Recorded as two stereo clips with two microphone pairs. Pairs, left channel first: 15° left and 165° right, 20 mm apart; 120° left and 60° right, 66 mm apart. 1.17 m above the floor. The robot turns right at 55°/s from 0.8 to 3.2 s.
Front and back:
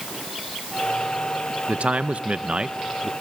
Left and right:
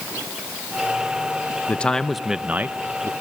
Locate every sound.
1.7 s a man speaking: 170° right, 0.7 m; by 3.1 s 95° right, 0.7 m